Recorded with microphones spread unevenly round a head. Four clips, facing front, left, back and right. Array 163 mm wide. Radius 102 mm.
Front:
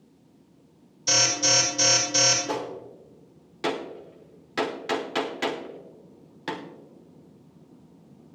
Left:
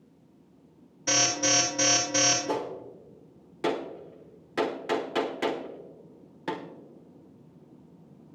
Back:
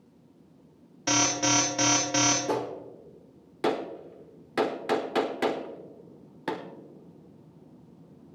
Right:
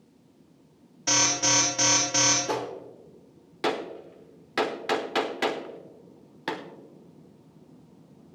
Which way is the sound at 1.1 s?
175° right.